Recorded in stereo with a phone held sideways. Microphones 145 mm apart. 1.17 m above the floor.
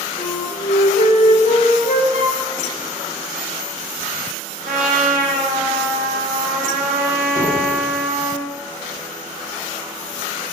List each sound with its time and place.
0.2 s a flute: 75° left (ahead or behind), 2 m
2.1 s a flute: 50° right (ahead or behind), 4 m
4.7 s a trumpet: 85° right, 4 m
7.3 s a door slam: 25° right (ahead or behind), 4.5 m